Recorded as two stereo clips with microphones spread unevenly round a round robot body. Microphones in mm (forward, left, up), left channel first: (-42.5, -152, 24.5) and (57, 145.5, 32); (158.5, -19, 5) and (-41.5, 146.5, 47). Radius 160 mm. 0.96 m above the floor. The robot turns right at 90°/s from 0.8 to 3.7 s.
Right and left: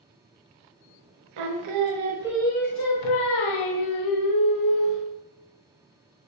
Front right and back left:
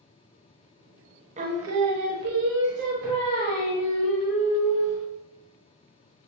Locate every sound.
1.4 s singing: 70° left, 0.7 m; by 5.0 s 75° right, 0.7 m